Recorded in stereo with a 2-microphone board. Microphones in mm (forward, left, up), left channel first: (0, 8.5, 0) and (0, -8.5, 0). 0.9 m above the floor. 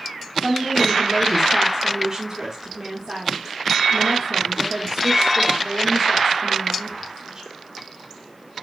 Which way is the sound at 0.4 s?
45° right (ahead or behind).